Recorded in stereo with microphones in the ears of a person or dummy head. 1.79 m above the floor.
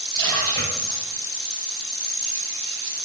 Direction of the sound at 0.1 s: 15° left (ahead or behind).